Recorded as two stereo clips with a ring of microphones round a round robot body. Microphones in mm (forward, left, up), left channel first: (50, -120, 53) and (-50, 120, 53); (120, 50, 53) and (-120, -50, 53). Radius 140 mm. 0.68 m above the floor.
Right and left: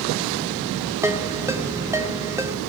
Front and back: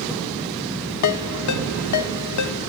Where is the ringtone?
30° left, 1.5 m.